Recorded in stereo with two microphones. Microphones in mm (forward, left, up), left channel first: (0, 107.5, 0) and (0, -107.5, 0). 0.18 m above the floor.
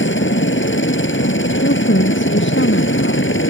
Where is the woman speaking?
65° left (ahead or behind).